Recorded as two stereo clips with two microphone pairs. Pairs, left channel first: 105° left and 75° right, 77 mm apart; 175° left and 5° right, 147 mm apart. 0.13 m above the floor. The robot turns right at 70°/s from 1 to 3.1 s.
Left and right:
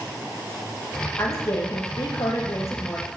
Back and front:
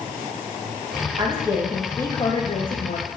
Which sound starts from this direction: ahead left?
A woman speaking, at 1.2 s.